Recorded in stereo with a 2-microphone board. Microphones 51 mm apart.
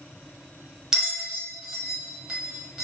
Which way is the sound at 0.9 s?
10° right (ahead or behind).